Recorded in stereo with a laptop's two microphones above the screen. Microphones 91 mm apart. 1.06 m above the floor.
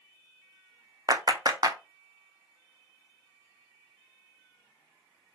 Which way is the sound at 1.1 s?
40° right (ahead or behind).